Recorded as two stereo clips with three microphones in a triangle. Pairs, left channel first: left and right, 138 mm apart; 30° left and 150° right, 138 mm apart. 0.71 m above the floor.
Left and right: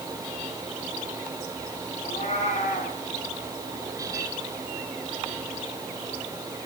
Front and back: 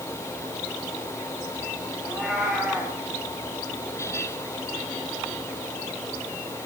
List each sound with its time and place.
2.0 s a cat meowing: 125° left, 10 m